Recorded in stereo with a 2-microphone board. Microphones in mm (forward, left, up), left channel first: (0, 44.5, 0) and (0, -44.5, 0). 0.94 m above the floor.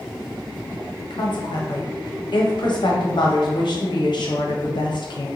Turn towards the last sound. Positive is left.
turn(degrees=60)  # may be behind; listen again after turning